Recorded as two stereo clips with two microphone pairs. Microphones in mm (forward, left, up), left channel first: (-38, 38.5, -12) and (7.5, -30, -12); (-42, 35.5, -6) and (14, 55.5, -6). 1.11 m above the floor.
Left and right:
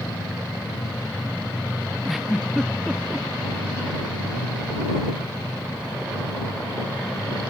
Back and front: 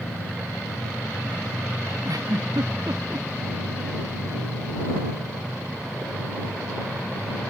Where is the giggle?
30° left.